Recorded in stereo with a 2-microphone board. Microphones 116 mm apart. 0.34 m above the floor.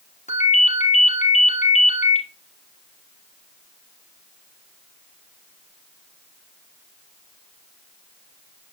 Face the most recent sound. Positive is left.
turn(degrees=85)